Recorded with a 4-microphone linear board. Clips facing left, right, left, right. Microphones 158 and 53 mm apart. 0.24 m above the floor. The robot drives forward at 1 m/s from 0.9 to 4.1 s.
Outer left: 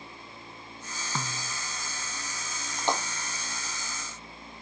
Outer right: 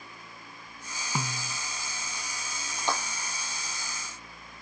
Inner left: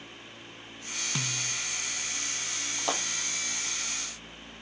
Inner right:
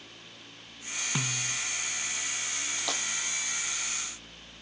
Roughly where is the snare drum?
Centre.